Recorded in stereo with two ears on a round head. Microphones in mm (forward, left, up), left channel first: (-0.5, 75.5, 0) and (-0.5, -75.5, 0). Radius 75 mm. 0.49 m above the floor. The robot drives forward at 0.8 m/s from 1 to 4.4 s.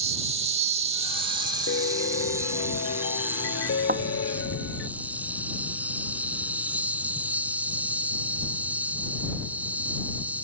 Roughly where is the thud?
Right.